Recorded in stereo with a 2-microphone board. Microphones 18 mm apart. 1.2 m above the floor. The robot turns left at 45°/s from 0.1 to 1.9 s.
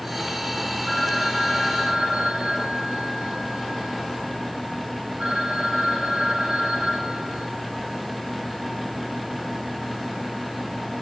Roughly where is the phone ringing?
Ahead.